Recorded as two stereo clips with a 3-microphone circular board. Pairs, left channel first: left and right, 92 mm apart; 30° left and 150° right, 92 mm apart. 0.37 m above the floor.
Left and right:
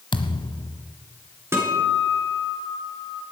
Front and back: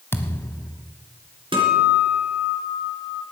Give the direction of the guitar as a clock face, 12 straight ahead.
5 o'clock.